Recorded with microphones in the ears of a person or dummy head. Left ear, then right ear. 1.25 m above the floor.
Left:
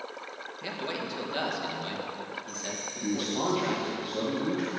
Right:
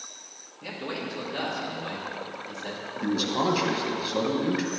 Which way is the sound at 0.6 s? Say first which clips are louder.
Right 1 dB; 45° left (ahead or behind).